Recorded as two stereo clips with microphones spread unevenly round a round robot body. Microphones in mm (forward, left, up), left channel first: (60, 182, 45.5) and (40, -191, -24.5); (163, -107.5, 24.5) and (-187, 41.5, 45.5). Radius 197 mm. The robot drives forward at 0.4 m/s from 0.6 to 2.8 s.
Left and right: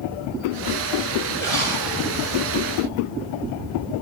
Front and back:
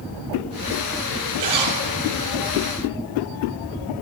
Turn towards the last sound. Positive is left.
turn(degrees=180)